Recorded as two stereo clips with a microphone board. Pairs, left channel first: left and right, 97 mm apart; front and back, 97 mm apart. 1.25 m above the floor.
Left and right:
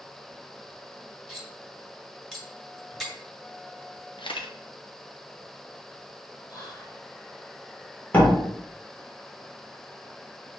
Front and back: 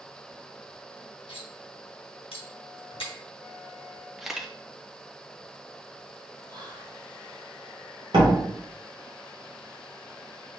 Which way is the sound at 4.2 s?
95° left.